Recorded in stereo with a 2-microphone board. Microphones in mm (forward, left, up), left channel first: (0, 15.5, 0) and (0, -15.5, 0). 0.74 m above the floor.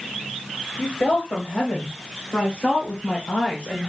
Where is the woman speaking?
75° left (ahead or behind), 3.5 m.